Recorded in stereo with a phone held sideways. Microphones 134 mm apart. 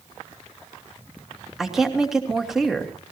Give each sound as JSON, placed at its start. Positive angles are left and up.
{"t": 1.6, "sound": "a woman speaking", "side_deg": 0, "distance_m": 3.0}